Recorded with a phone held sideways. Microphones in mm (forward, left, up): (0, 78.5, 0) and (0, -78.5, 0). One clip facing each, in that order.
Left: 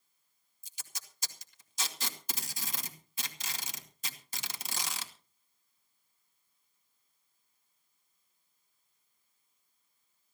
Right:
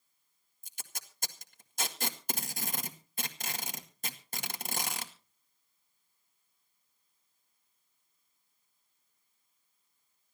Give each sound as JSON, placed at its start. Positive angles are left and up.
{"t": 0.6, "sound": "tape being pulled", "side_deg": -55, "distance_m": 1.8}